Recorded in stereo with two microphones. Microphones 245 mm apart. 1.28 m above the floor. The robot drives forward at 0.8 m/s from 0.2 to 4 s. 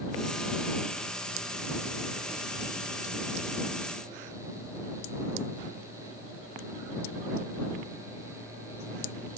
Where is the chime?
I don't hear a chime.